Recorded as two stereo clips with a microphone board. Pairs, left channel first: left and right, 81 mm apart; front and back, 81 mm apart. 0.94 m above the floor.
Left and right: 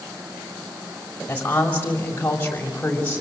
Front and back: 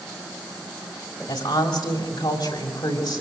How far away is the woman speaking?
About 5.5 m.